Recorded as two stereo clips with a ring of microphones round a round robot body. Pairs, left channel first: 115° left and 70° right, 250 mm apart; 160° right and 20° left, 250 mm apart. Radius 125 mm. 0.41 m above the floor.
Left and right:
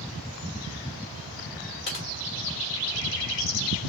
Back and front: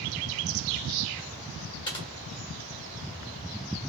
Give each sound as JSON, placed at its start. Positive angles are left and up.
{"t": 1.9, "sound": "typing on a keyboard", "azimuth_deg": 140, "distance_m": 1.2}